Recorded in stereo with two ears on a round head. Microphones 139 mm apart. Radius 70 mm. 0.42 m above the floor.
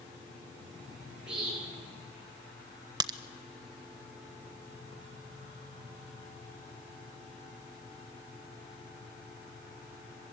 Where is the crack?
25° right (ahead or behind), 0.8 m.